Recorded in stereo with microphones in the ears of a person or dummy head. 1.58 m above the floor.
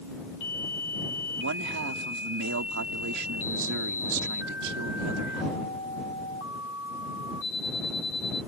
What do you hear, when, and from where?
1.4 s a man speaking: 60° right (ahead or behind)